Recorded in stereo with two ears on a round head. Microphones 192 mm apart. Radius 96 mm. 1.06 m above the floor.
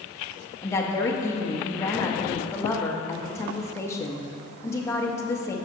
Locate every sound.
0.6 s a woman speaking: 15° left (ahead or behind), 1.0 m